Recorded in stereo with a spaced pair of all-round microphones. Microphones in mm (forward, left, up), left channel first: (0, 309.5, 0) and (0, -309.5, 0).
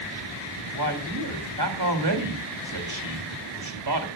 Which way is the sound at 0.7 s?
40° right (ahead or behind).